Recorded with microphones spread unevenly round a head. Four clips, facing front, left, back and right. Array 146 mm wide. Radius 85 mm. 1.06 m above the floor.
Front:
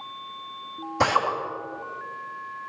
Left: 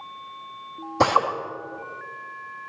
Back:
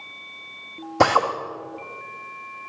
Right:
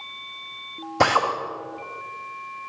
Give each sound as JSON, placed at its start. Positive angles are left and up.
{"t": 1.0, "sound": "a drill", "azimuth_deg": 160, "distance_m": 1.4}